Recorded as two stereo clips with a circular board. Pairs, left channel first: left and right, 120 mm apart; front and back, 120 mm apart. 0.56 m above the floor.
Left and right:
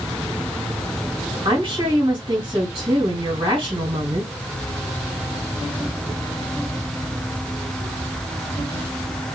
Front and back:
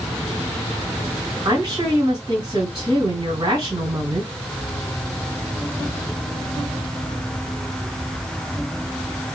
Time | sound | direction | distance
1.4 | a woman speaking | 140° right | 3 m